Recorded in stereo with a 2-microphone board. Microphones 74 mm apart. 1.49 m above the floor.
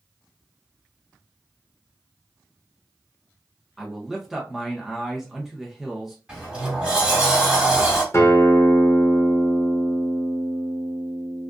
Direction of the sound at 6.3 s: 15° right (ahead or behind).